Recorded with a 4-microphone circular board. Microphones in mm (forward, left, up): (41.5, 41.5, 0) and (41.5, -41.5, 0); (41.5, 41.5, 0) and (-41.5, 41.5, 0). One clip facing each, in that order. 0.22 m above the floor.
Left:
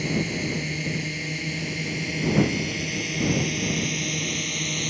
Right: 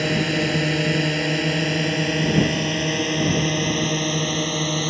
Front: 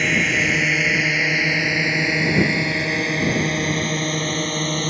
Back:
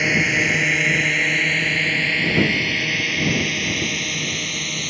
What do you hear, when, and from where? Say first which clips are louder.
0.0 s a drone: right 5 dB, even; 95° right; by 4.9 s 50° right